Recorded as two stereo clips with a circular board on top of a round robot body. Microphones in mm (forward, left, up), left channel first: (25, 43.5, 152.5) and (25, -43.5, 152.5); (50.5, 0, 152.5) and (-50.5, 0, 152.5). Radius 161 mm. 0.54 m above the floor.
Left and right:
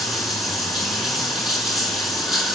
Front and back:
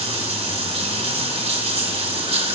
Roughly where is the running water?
Behind.